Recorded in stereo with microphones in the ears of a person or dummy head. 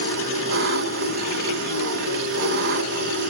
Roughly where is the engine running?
Right.